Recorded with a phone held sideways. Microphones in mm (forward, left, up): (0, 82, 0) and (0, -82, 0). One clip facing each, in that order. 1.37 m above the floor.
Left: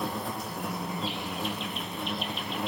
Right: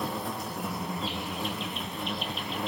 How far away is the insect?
About 0.8 m.